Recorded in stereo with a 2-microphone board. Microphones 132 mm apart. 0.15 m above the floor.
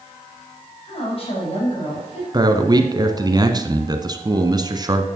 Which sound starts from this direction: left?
A woman speaking, at 0.8 s.